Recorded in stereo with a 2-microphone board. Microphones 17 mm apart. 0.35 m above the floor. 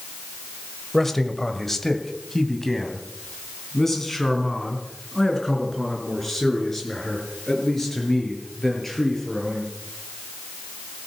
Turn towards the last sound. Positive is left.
turn(degrees=20)  # may be behind; listen again after turning